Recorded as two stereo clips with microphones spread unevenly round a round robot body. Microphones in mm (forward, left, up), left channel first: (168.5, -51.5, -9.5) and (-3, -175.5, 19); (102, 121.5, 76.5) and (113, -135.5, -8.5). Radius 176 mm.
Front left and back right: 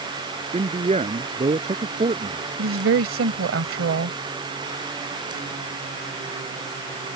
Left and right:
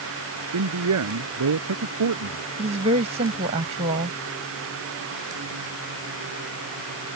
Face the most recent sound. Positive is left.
turn(degrees=-145)